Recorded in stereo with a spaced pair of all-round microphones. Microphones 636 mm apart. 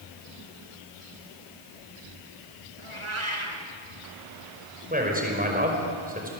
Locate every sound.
2.8 s a cat meowing: 50° right (ahead or behind), 3 m
4.9 s a man speaking: 15° right (ahead or behind), 5.5 m